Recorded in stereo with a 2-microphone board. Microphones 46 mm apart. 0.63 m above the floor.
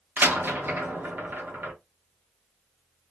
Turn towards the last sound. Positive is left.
turn(degrees=-50)  # may be behind; listen again after turning